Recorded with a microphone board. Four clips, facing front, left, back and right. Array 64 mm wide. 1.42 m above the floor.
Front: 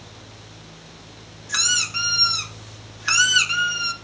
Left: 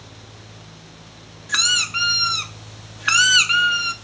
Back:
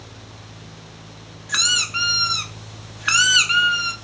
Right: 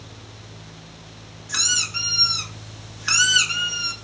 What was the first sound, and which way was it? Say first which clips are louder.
A squeak: left 6 dB, back 2 dB; 115° left.